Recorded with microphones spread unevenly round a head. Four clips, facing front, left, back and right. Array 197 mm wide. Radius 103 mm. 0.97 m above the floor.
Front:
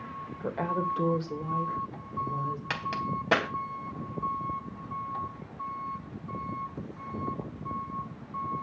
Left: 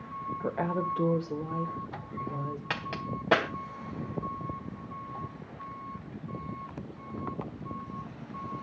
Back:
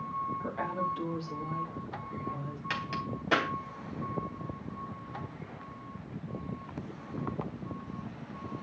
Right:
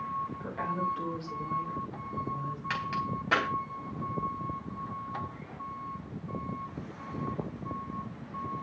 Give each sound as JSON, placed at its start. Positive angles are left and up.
{"t": 0.4, "sound": "a woman speaking", "azimuth_deg": 60, "distance_m": 3.5}
{"t": 2.7, "sound": "a crack", "azimuth_deg": 60, "distance_m": 3.5}